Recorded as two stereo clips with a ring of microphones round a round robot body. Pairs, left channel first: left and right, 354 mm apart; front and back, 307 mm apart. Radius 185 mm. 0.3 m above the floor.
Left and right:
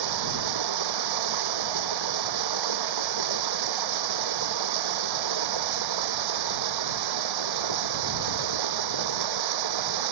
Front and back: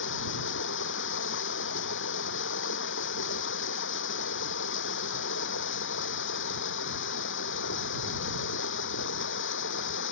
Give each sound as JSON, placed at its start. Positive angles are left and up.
{"t": 0.0, "sound": "running water", "azimuth_deg": -60}